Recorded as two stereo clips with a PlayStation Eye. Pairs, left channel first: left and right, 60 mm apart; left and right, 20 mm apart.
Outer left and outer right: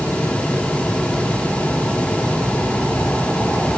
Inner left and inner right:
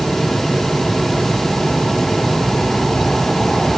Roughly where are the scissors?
I don't hear scissors.